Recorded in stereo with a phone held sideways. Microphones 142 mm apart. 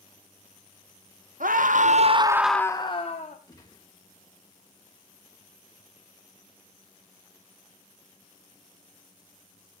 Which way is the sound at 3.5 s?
25° left (ahead or behind).